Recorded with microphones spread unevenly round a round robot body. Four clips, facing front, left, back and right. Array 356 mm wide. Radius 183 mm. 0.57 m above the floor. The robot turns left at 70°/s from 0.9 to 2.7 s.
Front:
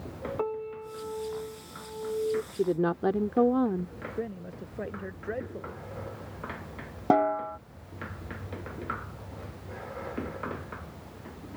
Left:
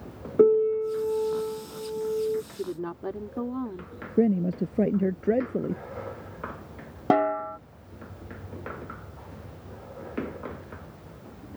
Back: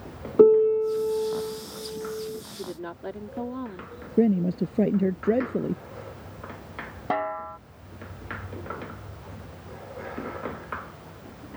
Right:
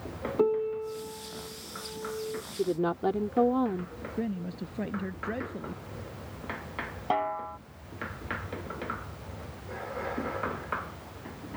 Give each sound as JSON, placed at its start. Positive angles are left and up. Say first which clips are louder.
{"t": 0.4, "sound": "a piano", "louder": "left 8 dB, back 19 dB", "azimuth_deg": 160}
{"t": 2.5, "sound": "a woman speaking", "louder": "right 5 dB, front 9 dB", "azimuth_deg": -5}
{"t": 4.2, "sound": "a man speaking", "louder": "left 11 dB, back 16 dB", "azimuth_deg": 150}
{"t": 7.1, "sound": "a snare drum", "louder": "left 7 dB, front 4 dB", "azimuth_deg": 55}